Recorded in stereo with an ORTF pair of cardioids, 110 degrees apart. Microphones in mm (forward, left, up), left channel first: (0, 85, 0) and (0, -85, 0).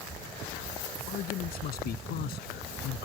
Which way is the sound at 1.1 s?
65° left.